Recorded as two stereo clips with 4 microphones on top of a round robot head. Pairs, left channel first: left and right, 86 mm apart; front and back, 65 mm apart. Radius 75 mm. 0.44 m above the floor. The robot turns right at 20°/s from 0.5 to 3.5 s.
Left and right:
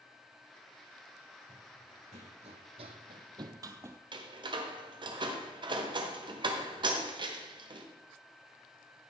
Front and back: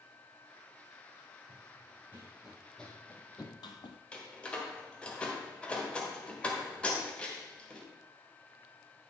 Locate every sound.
1.5 s running footsteps: 120° right, 1.8 m; by 4.0 s 30° right, 0.7 m
4.1 s a door slam: 70° right, 1.4 m